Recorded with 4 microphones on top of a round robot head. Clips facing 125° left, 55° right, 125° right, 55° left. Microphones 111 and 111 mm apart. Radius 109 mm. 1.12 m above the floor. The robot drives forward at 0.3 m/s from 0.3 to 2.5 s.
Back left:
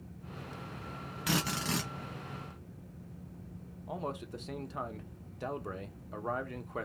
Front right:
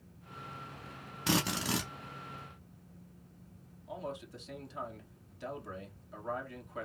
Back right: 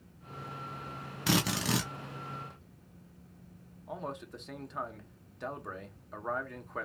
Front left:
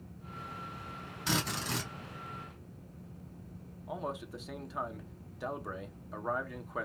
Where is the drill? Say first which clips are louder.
Front right 1 dB, back right 5 dB; 105° right, 0.6 m; by 1.9 s 135° right, 0.6 m.